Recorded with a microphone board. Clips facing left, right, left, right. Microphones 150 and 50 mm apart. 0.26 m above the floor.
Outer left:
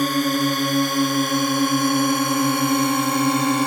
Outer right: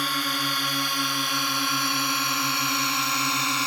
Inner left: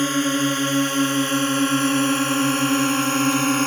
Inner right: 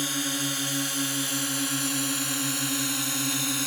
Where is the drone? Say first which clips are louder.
Outer left 11 dB, inner left 10 dB; 45° left (ahead or behind); by 3.7 s 50° left (ahead or behind).